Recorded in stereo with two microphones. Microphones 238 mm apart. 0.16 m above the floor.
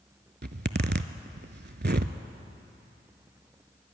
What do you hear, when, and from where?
0.4 s a zipper: 45° right (ahead or behind), 0.5 m